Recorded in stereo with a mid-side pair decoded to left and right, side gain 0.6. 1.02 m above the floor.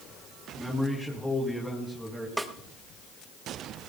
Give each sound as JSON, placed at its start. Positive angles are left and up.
{"t": 0.6, "sound": "a man speaking", "azimuth_deg": 5, "distance_m": 4.5}
{"t": 2.4, "sound": "a snare drum", "azimuth_deg": -5, "distance_m": 1.3}